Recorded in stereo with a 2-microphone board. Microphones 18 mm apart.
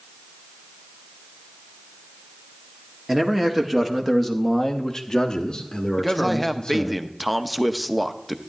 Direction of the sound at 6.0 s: 5° left (ahead or behind).